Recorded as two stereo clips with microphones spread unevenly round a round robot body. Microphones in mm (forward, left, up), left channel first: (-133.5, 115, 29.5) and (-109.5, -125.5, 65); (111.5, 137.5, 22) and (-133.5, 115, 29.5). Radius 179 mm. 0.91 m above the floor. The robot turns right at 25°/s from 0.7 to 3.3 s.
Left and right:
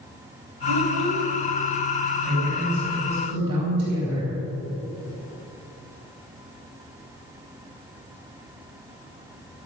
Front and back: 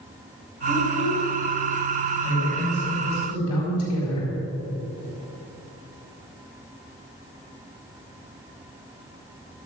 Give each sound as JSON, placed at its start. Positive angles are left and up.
{"t": 0.7, "sound": "a child speaking", "azimuth_deg": -100, "distance_m": 2.5}
{"t": 2.2, "sound": "a woman speaking", "azimuth_deg": -70, "distance_m": 4.5}